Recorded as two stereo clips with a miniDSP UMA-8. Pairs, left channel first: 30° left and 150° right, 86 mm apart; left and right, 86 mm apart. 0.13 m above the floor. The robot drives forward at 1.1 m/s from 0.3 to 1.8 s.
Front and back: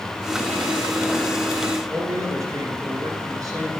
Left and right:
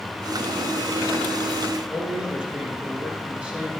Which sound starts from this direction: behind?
A man speaking, at 1.9 s.